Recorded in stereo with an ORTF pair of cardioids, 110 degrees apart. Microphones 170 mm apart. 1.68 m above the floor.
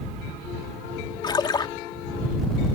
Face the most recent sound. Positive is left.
turn(degrees=25)